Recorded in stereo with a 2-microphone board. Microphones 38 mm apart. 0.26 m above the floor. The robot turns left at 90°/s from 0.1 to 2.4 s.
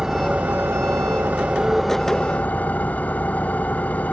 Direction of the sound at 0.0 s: 15° right.